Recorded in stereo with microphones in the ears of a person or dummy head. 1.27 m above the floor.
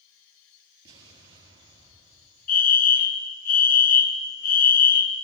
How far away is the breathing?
No breathing in this recording.